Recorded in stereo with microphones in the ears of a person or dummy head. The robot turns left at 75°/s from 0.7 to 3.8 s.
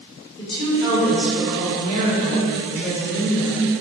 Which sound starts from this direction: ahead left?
A woman speaking, at 0.4 s.